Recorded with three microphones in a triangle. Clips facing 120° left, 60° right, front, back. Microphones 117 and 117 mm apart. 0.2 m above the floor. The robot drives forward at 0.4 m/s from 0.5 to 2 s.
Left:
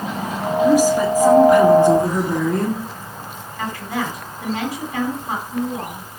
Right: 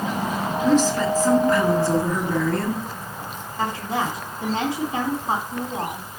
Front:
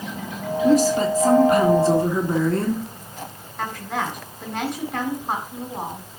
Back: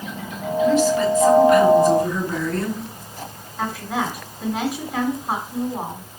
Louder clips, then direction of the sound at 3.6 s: Right 1 dB, back 2 dB; 100° right.